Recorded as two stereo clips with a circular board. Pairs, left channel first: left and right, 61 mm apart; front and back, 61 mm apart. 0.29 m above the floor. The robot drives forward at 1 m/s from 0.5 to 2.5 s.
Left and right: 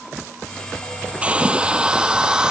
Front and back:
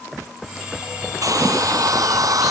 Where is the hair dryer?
160° right; by 2.5 s 165° right.